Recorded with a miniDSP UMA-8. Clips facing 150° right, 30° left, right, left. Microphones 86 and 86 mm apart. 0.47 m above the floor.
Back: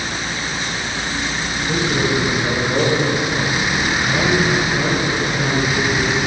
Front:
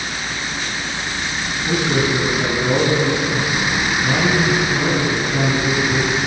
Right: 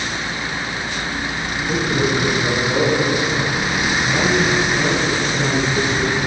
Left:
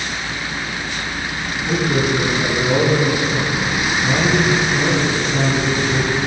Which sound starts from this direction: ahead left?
A man speaking, at 1.7 s.